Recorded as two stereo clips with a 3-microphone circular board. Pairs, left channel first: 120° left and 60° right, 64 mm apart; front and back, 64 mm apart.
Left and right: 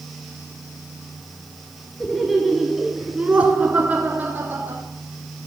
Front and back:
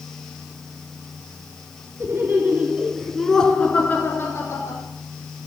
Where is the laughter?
150° right, 2.5 m; by 4.8 s 10° right, 2.5 m.